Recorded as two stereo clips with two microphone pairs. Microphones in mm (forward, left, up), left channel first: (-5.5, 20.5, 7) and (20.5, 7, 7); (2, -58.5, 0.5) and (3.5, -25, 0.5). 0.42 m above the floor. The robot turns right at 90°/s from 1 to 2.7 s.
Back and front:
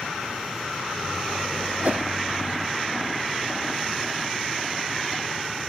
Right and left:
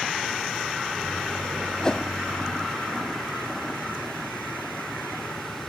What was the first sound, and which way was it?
A whoosh, 35° right.